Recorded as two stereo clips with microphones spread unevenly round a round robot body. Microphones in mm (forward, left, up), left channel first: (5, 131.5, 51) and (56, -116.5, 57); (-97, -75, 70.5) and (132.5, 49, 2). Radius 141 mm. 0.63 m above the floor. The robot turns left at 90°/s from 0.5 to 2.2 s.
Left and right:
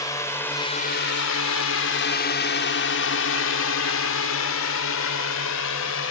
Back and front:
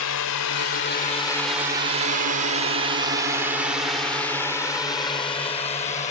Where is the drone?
Straight behind; by 6.1 s 140° left.